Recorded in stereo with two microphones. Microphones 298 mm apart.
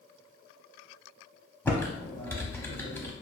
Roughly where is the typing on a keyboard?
Centre.